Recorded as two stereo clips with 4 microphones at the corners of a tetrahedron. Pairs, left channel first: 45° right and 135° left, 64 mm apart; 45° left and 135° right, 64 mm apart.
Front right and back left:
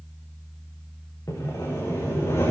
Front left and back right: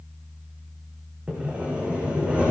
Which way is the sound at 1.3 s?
65° right.